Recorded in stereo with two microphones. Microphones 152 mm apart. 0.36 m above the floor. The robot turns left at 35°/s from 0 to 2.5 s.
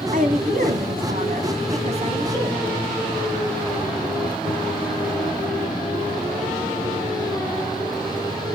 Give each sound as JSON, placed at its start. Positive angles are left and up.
{"t": 0.1, "sound": "a woman speaking", "azimuth_deg": -65, "distance_m": 3.0}